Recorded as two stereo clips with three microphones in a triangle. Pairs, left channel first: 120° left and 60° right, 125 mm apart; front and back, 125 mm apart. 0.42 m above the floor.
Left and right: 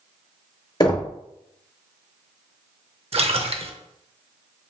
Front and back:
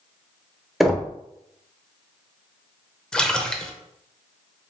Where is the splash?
80° right, 0.5 m.